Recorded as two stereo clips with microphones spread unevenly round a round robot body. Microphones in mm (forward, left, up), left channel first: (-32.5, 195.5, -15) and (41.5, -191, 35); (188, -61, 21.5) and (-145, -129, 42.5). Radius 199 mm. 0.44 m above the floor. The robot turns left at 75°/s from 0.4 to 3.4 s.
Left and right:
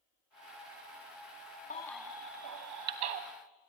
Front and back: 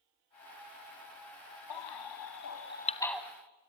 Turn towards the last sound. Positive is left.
turn(degrees=-100)